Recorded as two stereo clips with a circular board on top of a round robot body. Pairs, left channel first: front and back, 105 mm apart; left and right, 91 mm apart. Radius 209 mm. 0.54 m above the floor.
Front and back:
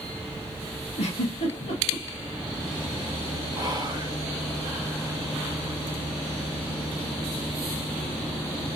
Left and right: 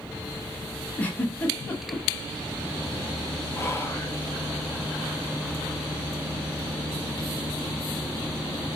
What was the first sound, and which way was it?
A giggle, 20° left.